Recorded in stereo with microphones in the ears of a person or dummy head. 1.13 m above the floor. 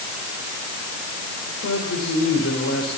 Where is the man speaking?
85° left, 5.5 m.